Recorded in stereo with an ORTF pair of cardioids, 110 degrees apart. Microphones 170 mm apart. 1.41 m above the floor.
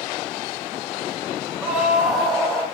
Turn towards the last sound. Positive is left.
turn(degrees=5)